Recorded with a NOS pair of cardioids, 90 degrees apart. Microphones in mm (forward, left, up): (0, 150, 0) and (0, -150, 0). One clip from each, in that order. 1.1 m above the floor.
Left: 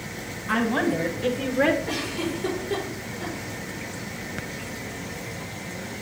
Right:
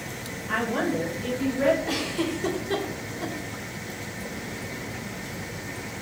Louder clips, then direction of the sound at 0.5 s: Left 2 dB; 40° left.